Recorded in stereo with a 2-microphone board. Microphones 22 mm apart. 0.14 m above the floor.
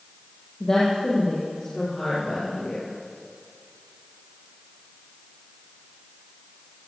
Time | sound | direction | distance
0.6 | a woman speaking | 30° left (ahead or behind) | 4 m